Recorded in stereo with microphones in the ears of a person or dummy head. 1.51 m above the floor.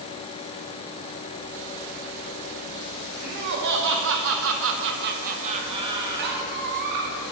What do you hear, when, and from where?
3.2 s laughter: 60° right (ahead or behind), 2.5 m; by 6.5 s 10° right (ahead or behind), 2.5 m
6.2 s a squeak: 60° right (ahead or behind), 1.7 m